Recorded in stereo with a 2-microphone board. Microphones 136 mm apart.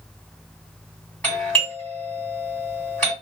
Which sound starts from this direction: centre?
A doorbell, at 1.2 s.